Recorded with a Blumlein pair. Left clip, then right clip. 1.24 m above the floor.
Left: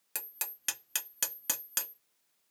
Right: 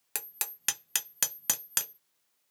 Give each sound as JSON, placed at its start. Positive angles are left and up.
{"t": 0.1, "sound": "hammering", "azimuth_deg": -15, "distance_m": 0.6}